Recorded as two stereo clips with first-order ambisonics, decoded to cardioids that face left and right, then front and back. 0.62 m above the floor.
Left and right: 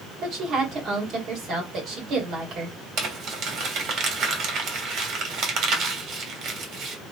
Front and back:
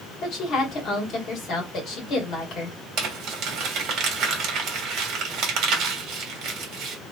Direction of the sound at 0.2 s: 45° right.